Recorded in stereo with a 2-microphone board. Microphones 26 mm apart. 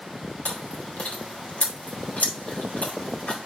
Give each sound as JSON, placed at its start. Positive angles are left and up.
{"t": 0.5, "sound": "chewing", "side_deg": 70, "distance_m": 2.5}